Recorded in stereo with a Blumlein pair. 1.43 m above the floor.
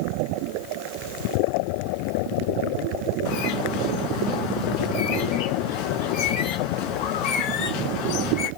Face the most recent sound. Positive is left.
turn(degrees=40)